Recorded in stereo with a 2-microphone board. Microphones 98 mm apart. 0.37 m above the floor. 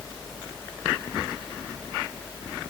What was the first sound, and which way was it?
Only background noise.